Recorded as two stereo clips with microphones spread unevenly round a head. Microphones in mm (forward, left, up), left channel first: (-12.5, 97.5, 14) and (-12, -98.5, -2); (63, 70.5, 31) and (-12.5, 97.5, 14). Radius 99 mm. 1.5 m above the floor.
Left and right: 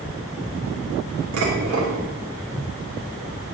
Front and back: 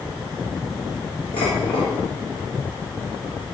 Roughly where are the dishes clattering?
Ahead right.